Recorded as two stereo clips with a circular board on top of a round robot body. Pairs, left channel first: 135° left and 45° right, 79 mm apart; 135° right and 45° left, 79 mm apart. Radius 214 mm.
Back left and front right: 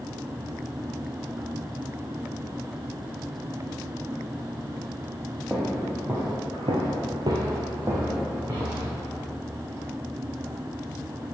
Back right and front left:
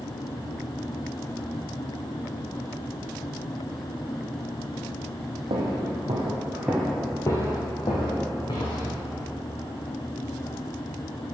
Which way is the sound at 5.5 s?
35° left.